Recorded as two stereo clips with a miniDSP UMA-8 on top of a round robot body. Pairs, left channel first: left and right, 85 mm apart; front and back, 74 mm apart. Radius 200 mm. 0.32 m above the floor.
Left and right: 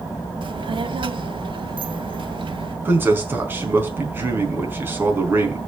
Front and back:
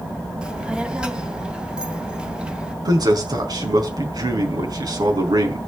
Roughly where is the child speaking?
Right.